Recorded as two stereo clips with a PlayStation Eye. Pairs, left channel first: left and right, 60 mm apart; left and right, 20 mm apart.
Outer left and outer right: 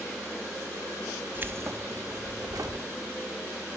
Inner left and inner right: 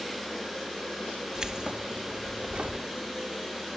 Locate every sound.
1.4 s keys jangling: 30° right (ahead or behind), 0.8 m; by 2.8 s 80° right, 1.5 m